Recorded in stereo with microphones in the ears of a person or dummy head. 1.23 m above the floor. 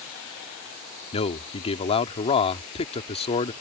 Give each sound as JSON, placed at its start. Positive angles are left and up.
{"t": 1.1, "sound": "a man speaking", "side_deg": 35}